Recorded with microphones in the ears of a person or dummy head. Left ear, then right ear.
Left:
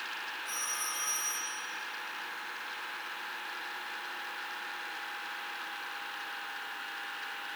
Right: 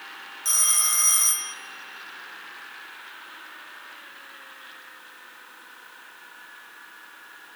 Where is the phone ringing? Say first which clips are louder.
Right 14 dB; 50° right (ahead or behind), 0.9 m.